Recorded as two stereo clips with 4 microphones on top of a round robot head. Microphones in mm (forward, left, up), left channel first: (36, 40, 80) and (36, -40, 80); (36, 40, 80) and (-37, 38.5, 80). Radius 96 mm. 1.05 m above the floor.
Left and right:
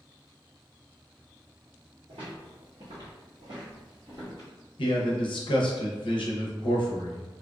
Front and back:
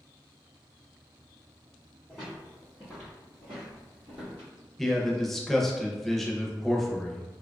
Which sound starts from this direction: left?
A man speaking, at 4.8 s.